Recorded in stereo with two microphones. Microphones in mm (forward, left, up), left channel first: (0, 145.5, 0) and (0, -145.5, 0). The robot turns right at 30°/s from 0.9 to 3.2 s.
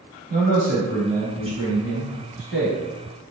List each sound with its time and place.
0.3 s a man speaking: 50° right, 1.3 m; by 2.8 s 5° left, 1.3 m